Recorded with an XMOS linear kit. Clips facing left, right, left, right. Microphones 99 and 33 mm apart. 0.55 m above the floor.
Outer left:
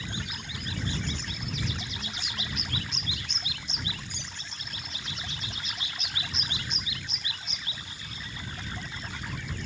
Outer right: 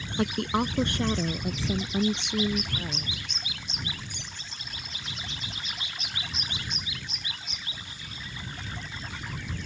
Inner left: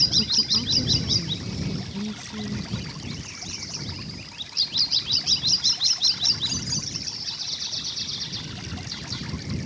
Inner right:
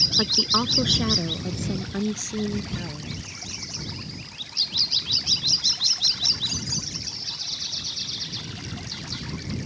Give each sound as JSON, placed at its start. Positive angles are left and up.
{"t": 0.2, "sound": "a woman speaking", "side_deg": -80}